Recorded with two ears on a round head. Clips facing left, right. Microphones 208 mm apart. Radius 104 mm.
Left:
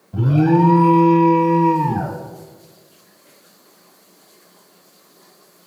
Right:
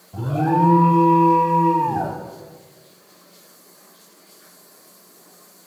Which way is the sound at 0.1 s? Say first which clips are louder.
Left 6 dB; 40° left (ahead or behind).